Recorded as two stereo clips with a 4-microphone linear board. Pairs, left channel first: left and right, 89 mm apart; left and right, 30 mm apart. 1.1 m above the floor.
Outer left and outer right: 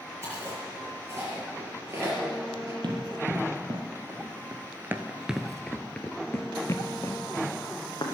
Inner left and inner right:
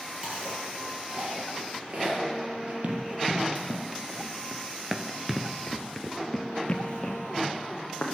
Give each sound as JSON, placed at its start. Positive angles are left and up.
{"t": 0.2, "sound": "chewing", "side_deg": -30, "distance_m": 7.0}
{"t": 2.8, "sound": "running footsteps", "side_deg": -55, "distance_m": 2.0}